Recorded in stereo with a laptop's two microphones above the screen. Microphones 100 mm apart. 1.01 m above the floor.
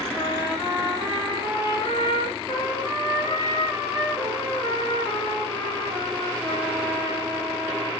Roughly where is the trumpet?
Left.